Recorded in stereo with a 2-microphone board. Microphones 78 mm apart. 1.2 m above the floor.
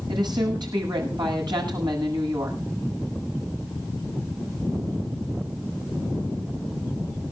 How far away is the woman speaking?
About 9 m.